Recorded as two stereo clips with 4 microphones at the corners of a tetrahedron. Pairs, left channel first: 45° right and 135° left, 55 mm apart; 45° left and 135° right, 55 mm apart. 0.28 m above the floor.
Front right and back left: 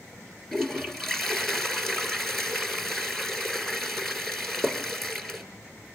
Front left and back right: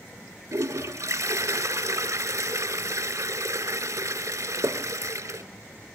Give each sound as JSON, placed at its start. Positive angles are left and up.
{"t": 0.5, "sound": "a toilet flushing", "azimuth_deg": -130, "distance_m": 1.8}